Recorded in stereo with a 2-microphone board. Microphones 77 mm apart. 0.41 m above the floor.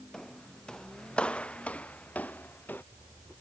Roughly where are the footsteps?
Centre.